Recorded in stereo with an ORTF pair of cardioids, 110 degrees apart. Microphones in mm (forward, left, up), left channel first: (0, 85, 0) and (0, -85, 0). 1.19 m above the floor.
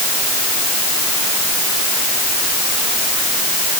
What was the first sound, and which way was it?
Only background noise.